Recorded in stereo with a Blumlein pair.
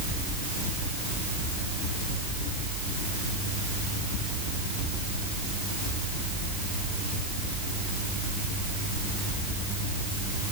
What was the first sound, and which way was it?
Only background noise.